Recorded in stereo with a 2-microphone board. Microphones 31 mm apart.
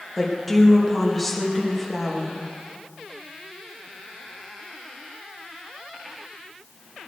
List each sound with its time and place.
0.2 s a woman speaking: 5° left (ahead or behind), 2.5 m